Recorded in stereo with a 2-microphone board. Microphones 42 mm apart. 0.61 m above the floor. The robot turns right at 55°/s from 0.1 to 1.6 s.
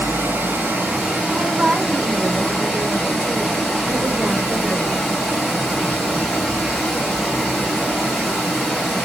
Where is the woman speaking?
40° right (ahead or behind), 0.9 m; by 5.1 s 50° right (ahead or behind), 0.9 m.